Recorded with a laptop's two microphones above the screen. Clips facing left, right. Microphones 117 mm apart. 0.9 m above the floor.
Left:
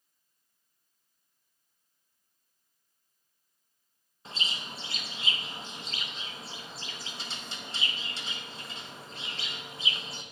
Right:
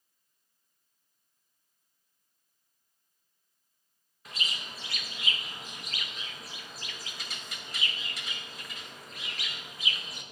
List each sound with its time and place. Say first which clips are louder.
4.2 s a bird: left 1 dB; 30° left (ahead or behind), 0.6 m